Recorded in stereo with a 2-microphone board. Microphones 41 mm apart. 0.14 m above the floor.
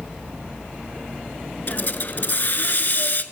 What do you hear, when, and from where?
1.7 s a hiss: 50° left (ahead or behind), 0.7 m